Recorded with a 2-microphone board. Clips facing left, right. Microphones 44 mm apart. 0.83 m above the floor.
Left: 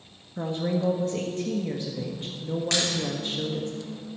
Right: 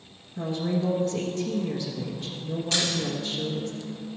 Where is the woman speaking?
35° left (ahead or behind), 1.2 m.